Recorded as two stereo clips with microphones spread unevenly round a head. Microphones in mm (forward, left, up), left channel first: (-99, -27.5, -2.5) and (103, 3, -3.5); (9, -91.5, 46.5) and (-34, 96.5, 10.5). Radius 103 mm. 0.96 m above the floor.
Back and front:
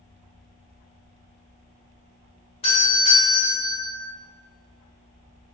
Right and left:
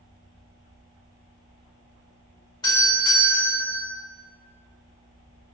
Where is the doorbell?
145° right, 1.2 m.